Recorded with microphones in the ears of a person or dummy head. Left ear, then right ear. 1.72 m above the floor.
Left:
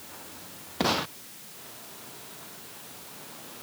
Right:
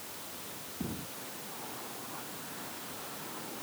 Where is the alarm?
No alarm in this recording.